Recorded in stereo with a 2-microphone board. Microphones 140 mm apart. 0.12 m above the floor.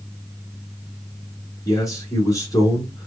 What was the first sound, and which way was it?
A man speaking, 25° left (ahead or behind).